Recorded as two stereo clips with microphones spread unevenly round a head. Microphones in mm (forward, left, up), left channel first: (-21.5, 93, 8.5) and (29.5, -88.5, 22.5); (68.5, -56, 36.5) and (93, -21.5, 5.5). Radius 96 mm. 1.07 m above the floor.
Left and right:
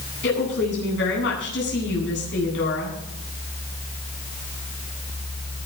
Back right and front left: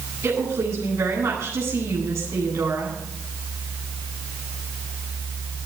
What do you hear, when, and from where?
0.2 s a woman speaking: 75° left, 9.5 m